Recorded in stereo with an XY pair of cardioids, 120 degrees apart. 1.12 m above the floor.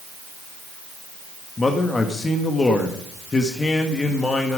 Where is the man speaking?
25° left, 1.5 m.